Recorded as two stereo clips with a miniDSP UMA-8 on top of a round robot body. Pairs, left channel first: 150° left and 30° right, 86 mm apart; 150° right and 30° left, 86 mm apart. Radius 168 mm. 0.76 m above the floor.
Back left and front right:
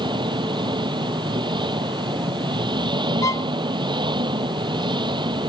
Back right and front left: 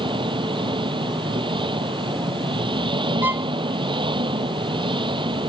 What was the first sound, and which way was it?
An engine running, 5° left.